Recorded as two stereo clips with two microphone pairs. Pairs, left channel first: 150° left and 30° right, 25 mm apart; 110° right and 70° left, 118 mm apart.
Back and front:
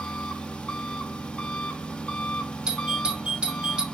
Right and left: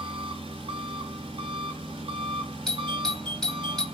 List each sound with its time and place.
0.0 s an engine running: 110° left, 1.0 m
2.7 s a doorbell: 30° right, 1.8 m